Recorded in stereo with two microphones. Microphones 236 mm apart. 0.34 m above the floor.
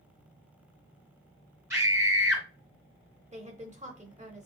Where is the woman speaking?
30° right (ahead or behind), 0.9 m.